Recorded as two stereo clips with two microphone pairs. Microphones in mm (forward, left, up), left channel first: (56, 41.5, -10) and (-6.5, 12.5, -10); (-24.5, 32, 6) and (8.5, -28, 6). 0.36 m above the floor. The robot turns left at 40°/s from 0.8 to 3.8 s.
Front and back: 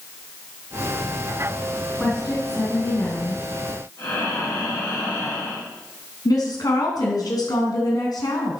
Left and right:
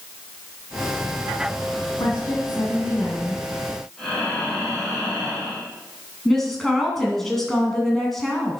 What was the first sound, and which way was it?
A woman speaking, 110° left.